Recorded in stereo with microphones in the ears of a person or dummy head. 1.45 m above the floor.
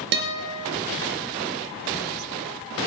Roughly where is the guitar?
Right.